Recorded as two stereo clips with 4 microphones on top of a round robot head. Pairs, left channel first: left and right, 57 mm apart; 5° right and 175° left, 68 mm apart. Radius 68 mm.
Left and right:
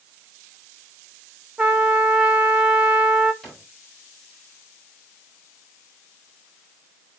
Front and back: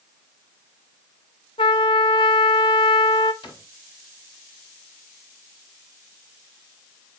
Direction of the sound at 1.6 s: 10° right.